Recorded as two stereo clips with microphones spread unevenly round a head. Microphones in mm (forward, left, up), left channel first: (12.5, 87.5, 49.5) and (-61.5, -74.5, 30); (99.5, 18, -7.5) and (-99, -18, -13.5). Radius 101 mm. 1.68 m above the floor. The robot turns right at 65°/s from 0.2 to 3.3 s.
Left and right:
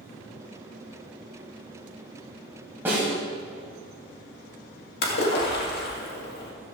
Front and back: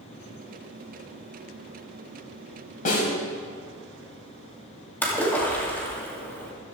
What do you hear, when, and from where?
2.9 s a snare drum: 30° right, 2.5 m; by 3.1 s 15° right, 2.5 m
5.0 s a splash: 90° left, 2 m